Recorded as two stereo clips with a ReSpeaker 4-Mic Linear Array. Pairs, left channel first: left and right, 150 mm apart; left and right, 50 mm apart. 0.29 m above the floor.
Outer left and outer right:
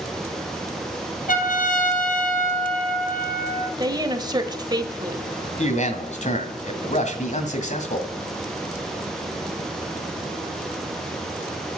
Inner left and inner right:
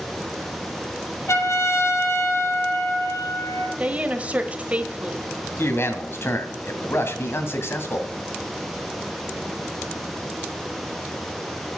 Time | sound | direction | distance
1.3 | a trumpet | 60° left (ahead or behind) | 3 m
3.8 | a woman speaking | 25° right (ahead or behind) | 1.1 m
5.6 | a man speaking | 50° left (ahead or behind) | 2 m